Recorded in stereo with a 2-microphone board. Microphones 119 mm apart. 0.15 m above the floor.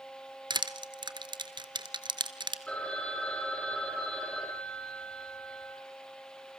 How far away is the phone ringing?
About 4 m.